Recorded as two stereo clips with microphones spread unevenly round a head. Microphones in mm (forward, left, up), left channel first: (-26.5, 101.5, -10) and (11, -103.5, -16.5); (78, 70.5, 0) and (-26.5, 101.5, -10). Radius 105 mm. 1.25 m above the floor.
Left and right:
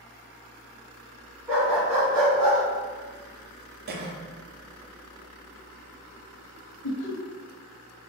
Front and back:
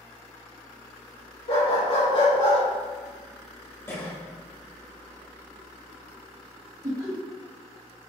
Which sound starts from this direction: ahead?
A dog barking, at 1.5 s.